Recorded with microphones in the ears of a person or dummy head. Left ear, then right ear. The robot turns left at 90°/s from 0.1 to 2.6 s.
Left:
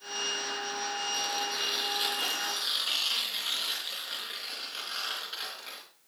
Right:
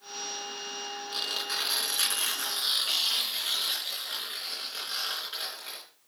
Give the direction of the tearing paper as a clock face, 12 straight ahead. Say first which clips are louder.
Right 4 dB; 1 o'clock.